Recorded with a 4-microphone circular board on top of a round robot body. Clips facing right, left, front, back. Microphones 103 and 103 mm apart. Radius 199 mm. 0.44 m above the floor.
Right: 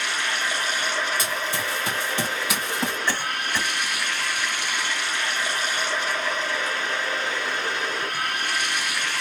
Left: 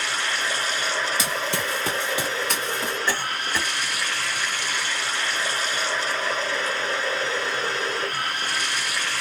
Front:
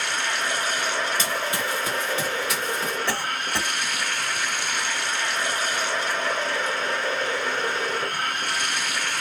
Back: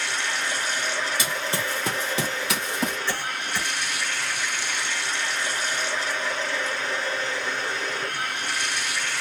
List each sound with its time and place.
0.0 s running water: 35° left, 1.3 m
1.2 s running footsteps: 100° left, 0.8 m; by 3.0 s 160° right, 1.0 m
3.1 s a cough: 10° left, 3 m